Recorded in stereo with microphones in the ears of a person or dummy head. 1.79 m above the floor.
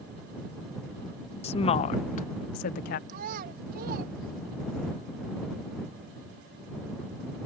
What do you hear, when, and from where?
1.4 s a woman speaking: 35° left (ahead or behind); by 3.0 s 65° left (ahead or behind)
3.1 s a child speaking: 55° right (ahead or behind)